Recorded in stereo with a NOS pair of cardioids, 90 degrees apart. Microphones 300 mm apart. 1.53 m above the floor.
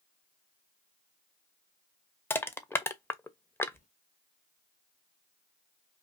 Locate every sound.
2.3 s crushing: 10° left, 0.7 m
3.7 s a sliding door: 25° left, 1.0 m